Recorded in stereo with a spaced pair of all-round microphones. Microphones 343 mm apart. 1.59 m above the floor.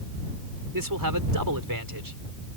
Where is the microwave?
I don't hear a microwave.